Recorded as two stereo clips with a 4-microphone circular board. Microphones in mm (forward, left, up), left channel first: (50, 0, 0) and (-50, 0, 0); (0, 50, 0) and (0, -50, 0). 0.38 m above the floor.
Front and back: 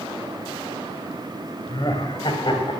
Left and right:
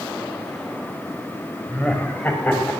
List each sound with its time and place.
1.7 s laughter: 20° left, 2 m; by 2.8 s 25° left, 3 m